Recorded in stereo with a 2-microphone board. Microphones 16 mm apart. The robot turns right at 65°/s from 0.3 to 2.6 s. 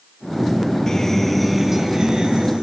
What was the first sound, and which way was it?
A guitar, 140° left.